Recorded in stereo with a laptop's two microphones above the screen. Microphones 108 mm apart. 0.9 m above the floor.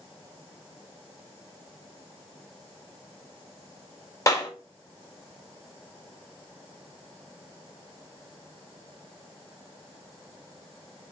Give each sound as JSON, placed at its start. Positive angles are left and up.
{"t": 4.3, "sound": "a clap", "side_deg": 30, "distance_m": 2.5}